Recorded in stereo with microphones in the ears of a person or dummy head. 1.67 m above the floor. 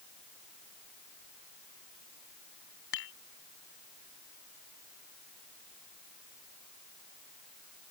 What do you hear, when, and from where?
2.9 s dishes clattering: 75° left (ahead or behind)